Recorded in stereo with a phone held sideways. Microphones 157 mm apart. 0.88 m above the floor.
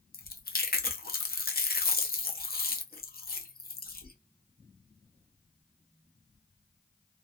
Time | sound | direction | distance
0.1 | chewing | 70° left (ahead or behind) | 0.6 m